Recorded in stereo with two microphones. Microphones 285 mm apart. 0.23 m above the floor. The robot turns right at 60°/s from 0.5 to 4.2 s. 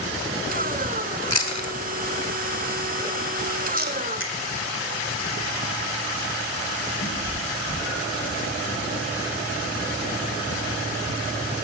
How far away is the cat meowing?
About 7.5 m.